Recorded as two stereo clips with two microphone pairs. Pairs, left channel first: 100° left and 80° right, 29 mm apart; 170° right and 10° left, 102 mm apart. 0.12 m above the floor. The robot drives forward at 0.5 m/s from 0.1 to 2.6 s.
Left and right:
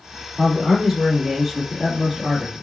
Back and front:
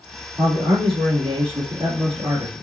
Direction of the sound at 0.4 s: Straight ahead.